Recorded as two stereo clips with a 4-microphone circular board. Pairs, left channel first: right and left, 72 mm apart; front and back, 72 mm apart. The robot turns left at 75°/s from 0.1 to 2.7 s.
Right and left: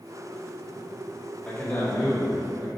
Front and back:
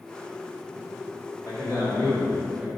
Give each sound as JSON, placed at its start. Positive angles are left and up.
{"t": 1.4, "sound": "a man speaking", "azimuth_deg": -15, "distance_m": 2.5}